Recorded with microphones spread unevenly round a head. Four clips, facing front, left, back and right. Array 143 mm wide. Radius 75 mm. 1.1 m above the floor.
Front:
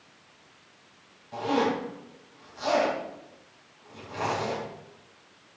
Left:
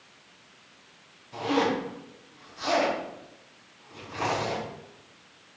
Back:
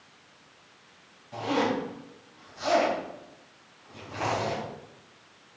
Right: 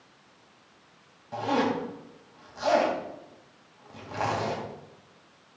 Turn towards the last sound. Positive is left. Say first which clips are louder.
# left 1 dB, front 1 dB
turn(degrees=-80)